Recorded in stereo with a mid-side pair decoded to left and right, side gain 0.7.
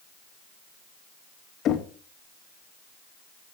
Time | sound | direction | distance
1.6 | knocking | 45° left | 1.1 m